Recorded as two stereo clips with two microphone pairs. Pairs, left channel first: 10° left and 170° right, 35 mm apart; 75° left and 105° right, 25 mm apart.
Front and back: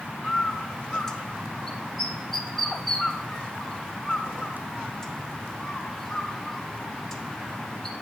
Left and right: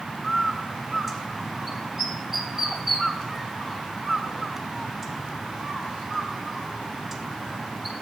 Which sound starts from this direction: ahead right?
A bird, at 0.2 s.